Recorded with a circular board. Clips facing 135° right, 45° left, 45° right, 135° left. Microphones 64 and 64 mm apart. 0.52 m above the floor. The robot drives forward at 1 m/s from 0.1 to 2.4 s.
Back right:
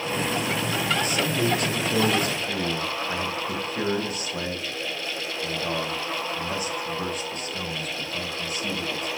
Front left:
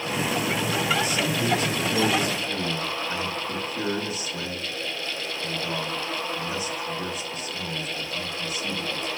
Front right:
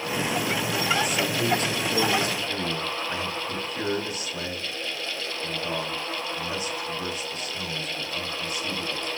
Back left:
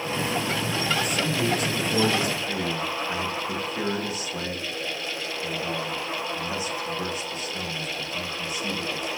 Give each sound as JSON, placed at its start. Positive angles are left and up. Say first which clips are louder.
{"t": 1.0, "sound": "a man speaking", "louder": "back right 1 dB, even", "azimuth_deg": -130, "distance_m": 1.6}